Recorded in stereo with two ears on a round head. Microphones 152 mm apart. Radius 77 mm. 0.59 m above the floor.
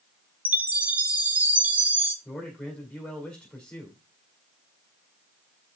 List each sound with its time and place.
0.5 s a chime: 10° right (ahead or behind), 0.9 m
2.2 s a man speaking: 5° left (ahead or behind), 1.8 m